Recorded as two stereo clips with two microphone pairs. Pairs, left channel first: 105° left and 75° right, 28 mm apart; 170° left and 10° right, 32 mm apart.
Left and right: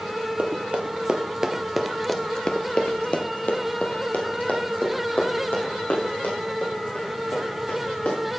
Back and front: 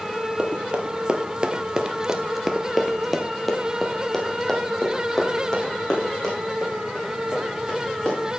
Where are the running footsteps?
60° right, 1.8 m; by 8.4 s 100° left, 6 m.